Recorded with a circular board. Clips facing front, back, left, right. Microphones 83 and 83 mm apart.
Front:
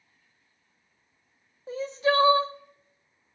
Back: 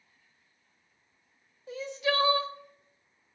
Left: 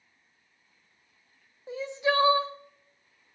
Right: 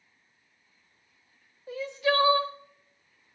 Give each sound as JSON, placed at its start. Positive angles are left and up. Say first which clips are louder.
{"t": 1.7, "sound": "crying", "louder": "front 5 dB, even", "azimuth_deg": 35, "distance_m": 0.7}